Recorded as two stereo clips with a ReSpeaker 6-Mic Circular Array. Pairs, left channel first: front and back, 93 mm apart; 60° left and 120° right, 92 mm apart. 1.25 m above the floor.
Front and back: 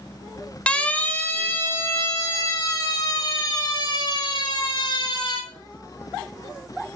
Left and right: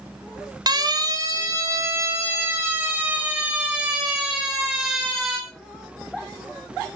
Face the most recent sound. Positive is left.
turn(degrees=-35)